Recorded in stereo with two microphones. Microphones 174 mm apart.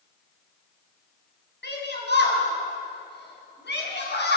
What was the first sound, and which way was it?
A shout, 80° left.